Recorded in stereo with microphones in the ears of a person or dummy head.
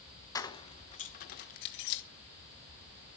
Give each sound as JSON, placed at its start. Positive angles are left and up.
{"t": 0.3, "sound": "keys jangling", "side_deg": 15, "distance_m": 1.2}